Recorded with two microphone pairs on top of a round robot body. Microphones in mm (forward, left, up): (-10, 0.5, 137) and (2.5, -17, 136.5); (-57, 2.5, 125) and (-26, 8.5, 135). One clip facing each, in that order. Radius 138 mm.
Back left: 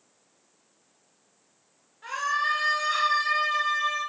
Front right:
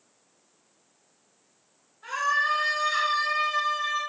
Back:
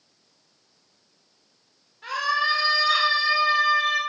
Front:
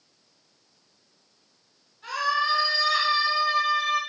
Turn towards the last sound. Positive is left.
turn(degrees=180)